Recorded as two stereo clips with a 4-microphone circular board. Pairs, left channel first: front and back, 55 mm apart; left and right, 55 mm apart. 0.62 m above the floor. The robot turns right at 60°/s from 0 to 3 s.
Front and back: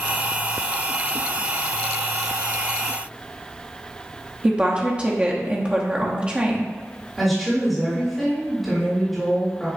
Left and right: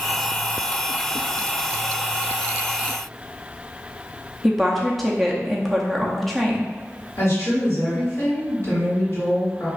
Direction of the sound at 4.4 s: 170° left.